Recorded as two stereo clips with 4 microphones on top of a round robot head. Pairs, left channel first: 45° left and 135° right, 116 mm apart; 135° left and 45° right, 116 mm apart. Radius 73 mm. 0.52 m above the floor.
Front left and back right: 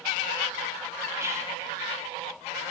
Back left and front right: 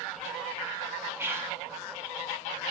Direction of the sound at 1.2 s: 95° right.